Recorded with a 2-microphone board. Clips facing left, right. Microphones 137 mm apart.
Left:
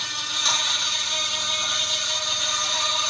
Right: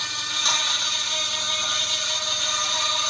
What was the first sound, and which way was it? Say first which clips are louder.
An insect: even; centre (ahead or behind).